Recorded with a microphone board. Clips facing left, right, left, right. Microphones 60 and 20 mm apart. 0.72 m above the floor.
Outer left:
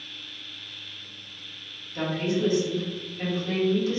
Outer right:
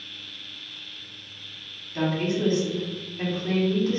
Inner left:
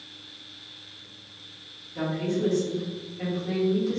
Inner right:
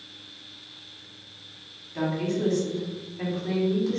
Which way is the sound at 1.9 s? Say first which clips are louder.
Outer right 1 dB, inner right 1 dB; 40° right (ahead or behind).